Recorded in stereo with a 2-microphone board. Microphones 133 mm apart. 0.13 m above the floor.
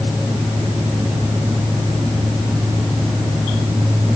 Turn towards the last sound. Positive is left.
No sound to turn to.